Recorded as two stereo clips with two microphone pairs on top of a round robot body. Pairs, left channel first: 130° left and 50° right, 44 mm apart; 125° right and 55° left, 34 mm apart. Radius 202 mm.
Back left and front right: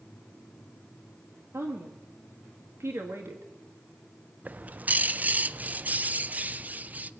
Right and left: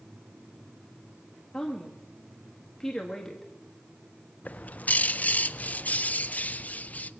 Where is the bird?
95° right, 0.6 m.